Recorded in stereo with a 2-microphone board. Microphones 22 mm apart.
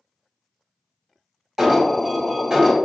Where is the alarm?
10° right (ahead or behind), 1.5 m.